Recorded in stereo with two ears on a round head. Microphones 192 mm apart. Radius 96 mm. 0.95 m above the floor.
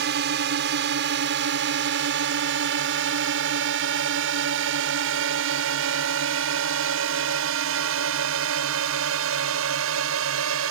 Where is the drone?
55° right (ahead or behind); by 10.7 s 70° right (ahead or behind).